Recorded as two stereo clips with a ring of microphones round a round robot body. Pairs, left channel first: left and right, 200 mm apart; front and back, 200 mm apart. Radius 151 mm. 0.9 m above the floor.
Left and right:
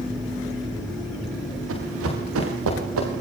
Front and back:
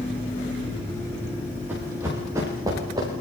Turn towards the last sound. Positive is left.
turn(degrees=-105)